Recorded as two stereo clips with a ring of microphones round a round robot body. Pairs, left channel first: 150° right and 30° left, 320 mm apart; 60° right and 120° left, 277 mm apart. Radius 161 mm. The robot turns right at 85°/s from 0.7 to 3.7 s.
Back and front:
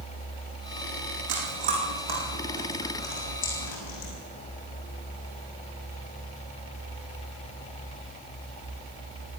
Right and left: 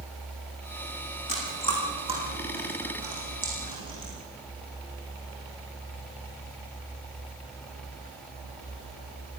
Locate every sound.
1.3 s chewing: 20° right, 9.5 m; by 4.1 s 175° right, 9.5 m